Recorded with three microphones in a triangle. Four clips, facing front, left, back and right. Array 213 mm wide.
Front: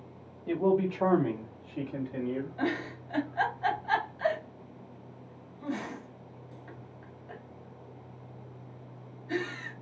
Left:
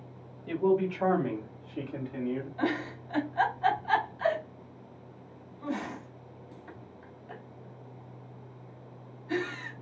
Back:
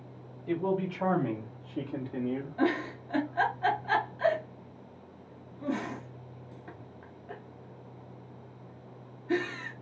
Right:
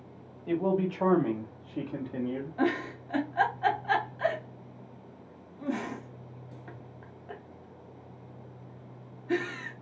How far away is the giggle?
About 1.0 m.